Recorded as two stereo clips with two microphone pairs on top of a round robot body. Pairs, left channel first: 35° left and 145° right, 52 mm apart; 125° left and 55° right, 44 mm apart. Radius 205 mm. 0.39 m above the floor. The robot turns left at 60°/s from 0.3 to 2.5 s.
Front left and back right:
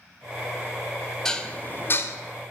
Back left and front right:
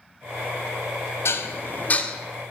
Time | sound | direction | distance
1.2 | dishes clattering | 110° left | 1.0 m